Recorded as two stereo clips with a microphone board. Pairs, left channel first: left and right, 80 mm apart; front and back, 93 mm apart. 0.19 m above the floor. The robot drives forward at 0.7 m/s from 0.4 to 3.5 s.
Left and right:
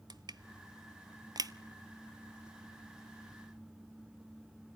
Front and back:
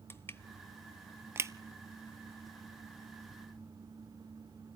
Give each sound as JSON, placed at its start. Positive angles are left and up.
{"t": 0.1, "sound": "crushing", "azimuth_deg": -65, "distance_m": 0.7}